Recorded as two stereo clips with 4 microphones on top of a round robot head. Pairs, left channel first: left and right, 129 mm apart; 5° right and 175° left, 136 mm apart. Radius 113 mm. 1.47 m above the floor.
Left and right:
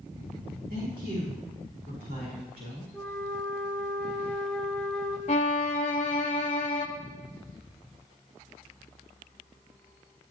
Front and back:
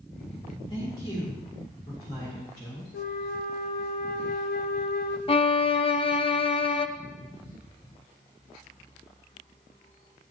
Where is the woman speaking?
70° right, 4 m; by 2.8 s 75° right, 5.5 m.